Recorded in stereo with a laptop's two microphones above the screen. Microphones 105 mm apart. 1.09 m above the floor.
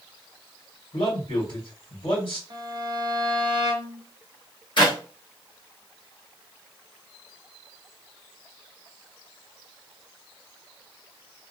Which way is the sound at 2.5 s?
45° right (ahead or behind).